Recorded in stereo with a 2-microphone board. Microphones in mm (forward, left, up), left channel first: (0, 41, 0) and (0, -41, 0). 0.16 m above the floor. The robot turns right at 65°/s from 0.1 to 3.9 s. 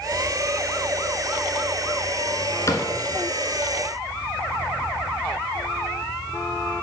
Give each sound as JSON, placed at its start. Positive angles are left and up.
{"t": 2.7, "sound": "a cupboard door", "side_deg": 35, "distance_m": 1.5}